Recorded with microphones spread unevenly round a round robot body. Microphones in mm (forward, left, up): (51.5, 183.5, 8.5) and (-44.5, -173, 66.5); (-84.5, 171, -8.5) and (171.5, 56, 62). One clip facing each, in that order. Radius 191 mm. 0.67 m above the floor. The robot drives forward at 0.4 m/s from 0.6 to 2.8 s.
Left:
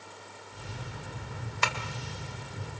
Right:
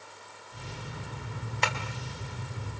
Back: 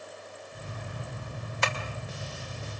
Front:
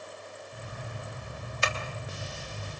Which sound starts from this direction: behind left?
Tapping, at 1.6 s.